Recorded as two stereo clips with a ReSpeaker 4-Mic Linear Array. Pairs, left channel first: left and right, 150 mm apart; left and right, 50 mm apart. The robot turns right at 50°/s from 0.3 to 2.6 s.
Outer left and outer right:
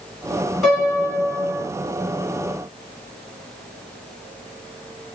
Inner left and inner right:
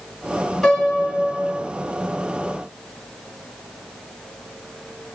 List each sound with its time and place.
0.6 s a piano: straight behind, 1.8 m; by 1.6 s 130° right, 1.8 m